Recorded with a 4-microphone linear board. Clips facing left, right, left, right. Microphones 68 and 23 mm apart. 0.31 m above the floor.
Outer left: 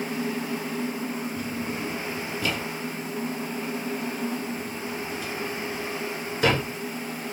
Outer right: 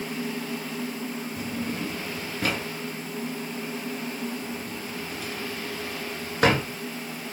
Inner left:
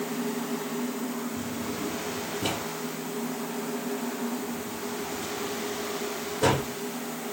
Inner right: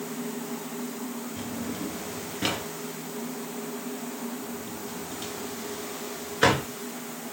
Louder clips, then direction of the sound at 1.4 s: Even, inner left 1 dB; 55° right (ahead or behind).